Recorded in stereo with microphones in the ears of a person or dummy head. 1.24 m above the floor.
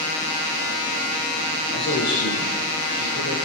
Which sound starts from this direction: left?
A man speaking, at 1.7 s.